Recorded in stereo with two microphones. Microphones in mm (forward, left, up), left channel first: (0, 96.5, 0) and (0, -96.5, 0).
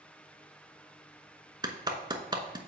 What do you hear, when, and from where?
1.6 s a clap: 20° right (ahead or behind), 1.0 m